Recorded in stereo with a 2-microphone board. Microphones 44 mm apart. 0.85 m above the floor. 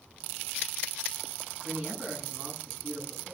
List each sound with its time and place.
1.6 s a man speaking: 15° right (ahead or behind), 10 m